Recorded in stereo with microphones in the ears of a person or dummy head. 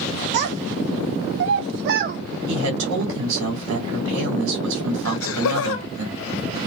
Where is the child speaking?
60° right (ahead or behind), 0.9 m; by 2.2 s 45° right (ahead or behind), 0.8 m.